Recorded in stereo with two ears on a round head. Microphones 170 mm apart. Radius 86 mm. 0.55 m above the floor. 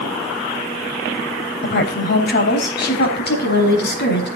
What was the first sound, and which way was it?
A woman speaking, 55° left (ahead or behind).